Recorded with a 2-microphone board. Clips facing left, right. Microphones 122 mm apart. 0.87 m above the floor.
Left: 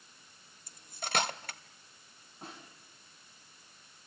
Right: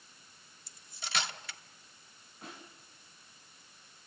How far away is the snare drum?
About 6 m.